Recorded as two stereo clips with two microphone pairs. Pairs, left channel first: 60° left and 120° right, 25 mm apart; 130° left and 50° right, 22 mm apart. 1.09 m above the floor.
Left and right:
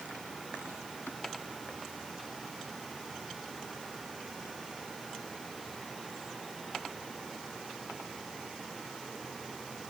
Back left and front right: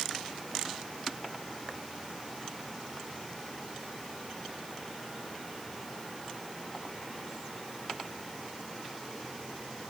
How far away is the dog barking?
No dog barking in this recording.